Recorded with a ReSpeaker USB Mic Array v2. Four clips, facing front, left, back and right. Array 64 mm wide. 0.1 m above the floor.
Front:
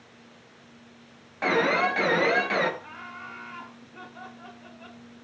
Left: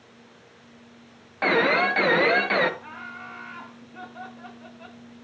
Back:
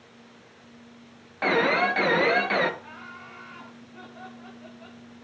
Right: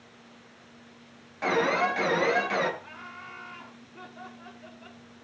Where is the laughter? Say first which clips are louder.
Left 5 dB, front 2 dB; 85° left, 7 m.